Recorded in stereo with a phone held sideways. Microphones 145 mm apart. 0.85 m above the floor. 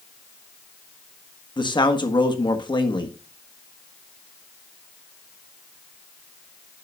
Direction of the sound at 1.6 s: 30° left (ahead or behind).